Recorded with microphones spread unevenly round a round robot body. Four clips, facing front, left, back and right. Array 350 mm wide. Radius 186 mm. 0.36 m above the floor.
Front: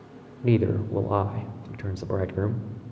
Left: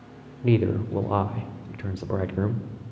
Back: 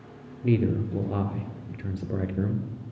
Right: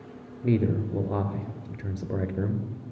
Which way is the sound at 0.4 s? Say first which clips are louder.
Left 2 dB, front 2 dB; 20° left.